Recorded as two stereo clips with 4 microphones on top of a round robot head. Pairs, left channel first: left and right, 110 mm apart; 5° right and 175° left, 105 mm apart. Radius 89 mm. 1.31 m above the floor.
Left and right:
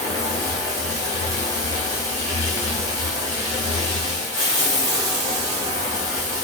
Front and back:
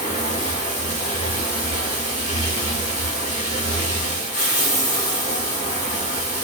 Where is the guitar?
No guitar in this recording.